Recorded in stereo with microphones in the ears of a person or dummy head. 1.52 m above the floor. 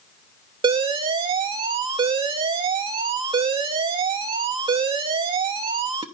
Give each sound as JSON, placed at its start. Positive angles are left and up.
{"t": 0.6, "sound": "an alarm", "side_deg": -25, "distance_m": 0.6}